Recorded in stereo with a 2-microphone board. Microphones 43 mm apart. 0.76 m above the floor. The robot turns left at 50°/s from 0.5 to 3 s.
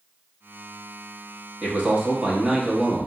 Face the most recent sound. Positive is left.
turn(degrees=-175)